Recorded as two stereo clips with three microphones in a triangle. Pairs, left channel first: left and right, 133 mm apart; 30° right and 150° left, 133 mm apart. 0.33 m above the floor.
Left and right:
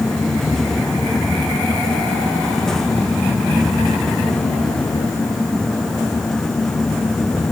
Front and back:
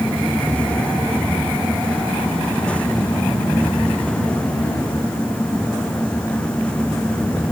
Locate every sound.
Only background noise.